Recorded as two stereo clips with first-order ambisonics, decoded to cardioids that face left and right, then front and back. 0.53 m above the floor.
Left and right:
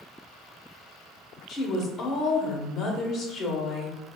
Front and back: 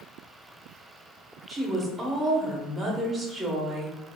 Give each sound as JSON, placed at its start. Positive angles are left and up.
{"t": 1.5, "sound": "a woman speaking", "azimuth_deg": 120, "distance_m": 0.8}